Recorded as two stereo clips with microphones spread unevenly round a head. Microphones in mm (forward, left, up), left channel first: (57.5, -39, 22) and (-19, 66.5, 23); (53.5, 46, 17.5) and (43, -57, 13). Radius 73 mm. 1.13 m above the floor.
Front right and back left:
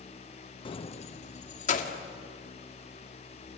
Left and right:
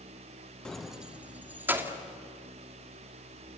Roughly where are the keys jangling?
Ahead.